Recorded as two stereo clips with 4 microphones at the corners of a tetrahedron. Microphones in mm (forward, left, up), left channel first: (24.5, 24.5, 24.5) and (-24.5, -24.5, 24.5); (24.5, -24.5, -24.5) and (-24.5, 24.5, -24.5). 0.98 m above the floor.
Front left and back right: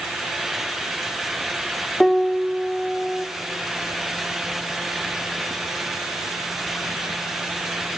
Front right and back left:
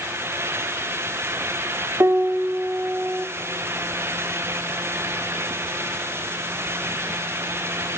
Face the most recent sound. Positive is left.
turn(degrees=135)